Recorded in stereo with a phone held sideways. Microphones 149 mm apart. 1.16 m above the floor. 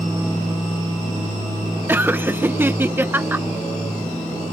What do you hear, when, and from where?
1.9 s laughter: 15° right (ahead or behind)